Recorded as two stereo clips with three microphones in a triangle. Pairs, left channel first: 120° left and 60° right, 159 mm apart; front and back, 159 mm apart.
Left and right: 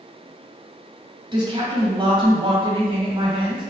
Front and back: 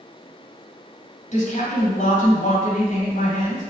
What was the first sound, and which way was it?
A woman speaking, 10° right.